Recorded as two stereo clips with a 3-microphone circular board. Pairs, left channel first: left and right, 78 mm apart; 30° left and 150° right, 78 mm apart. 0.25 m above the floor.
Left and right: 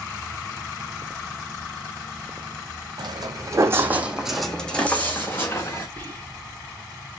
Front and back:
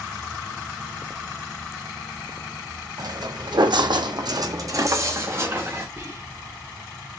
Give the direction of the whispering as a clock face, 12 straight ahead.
7 o'clock.